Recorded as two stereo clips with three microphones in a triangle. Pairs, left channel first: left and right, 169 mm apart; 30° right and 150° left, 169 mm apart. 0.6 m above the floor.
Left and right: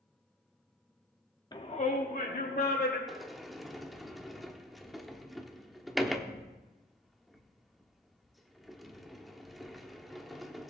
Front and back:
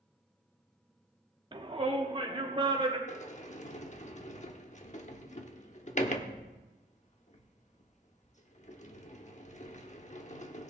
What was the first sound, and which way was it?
A shout, 125° left.